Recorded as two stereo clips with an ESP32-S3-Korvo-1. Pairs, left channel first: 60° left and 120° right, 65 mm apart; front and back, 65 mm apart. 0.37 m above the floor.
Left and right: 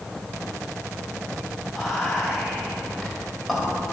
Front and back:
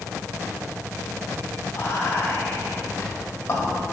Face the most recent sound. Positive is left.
turn(degrees=-25)